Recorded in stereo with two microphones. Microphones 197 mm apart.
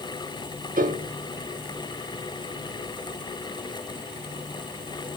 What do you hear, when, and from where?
0.8 s a piano: 45° right (ahead or behind), 1.1 m